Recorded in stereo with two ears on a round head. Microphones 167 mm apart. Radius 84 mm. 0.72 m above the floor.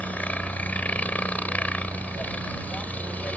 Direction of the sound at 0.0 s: 10° left (ahead or behind).